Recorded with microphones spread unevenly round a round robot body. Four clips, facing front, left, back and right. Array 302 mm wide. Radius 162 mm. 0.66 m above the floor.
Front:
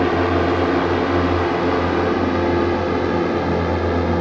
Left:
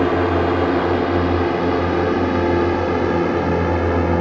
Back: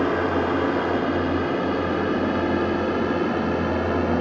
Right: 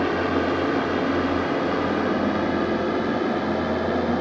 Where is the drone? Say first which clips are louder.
Left 5 dB, front 4 dB; 50° left; by 4.2 s 60° left.